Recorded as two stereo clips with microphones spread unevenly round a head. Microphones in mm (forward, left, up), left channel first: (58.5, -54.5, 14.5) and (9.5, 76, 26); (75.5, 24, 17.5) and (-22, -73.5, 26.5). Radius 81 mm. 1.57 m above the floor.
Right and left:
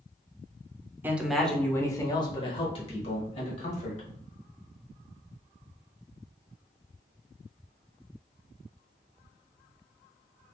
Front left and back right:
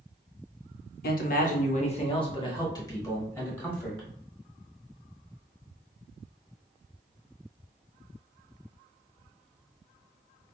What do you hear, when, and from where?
1.0 s a man speaking: 35° left, 0.7 m; by 4.1 s 30° right, 1.7 m